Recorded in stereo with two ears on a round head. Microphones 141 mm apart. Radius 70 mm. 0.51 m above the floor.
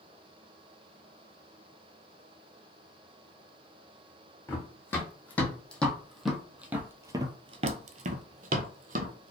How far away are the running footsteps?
About 1.7 m.